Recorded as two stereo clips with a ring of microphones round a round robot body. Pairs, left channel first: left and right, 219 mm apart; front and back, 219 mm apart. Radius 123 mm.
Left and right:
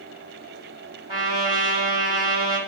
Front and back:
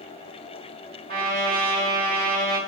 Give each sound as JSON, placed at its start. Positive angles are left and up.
{"t": 1.1, "sound": "a trumpet", "azimuth_deg": -155, "distance_m": 1.2}